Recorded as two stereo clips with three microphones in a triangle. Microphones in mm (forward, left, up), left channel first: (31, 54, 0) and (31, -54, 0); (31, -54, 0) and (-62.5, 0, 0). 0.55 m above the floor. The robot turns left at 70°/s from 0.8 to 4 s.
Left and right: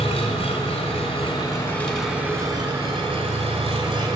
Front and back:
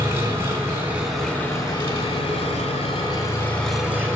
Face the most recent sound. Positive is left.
turn(degrees=-140)